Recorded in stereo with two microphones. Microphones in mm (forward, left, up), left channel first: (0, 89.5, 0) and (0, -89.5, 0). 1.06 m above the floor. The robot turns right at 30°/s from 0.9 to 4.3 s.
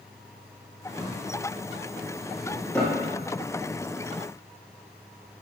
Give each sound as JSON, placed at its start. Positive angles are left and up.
{"t": 1.0, "sound": "a drawer", "side_deg": -40, "distance_m": 1.5}